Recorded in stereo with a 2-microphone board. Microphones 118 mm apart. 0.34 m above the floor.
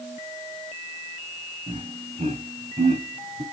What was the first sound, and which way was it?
Laughter, 55° right (ahead or behind).